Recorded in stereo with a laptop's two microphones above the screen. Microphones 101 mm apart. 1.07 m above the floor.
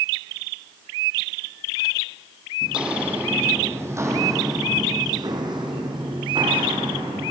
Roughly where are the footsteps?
Centre.